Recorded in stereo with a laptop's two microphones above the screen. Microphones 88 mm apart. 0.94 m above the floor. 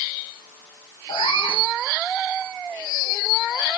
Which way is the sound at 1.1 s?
80° left.